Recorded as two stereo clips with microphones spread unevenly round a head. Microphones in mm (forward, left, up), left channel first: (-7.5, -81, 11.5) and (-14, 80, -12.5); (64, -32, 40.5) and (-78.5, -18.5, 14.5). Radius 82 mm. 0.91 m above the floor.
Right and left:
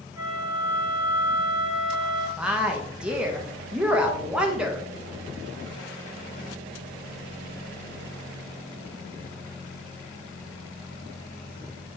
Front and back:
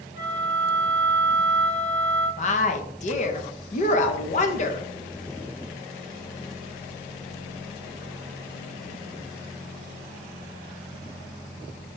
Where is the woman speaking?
20° left, 1.0 m.